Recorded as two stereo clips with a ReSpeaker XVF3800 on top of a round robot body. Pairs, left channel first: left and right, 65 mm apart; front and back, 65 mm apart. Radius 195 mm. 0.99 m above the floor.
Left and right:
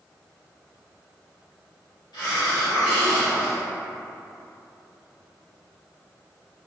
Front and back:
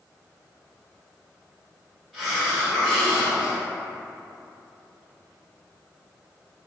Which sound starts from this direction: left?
A hiss, at 2.1 s.